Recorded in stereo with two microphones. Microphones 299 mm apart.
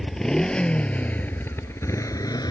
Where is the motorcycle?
Centre (ahead or behind); by 2.5 s 15° left (ahead or behind).